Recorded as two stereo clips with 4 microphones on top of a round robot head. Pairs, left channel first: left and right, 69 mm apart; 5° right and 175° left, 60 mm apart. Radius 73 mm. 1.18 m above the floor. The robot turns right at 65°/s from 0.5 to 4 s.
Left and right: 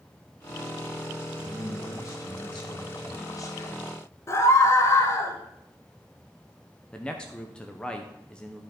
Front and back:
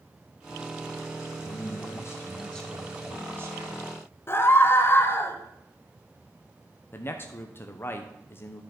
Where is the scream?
40° left, 1.3 m.